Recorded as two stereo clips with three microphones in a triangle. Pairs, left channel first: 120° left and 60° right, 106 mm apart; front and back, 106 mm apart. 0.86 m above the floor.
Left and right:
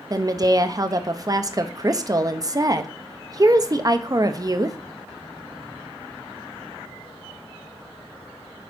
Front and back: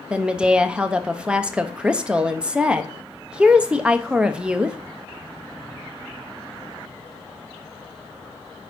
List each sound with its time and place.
0.1 s a woman speaking: 105° right, 0.8 m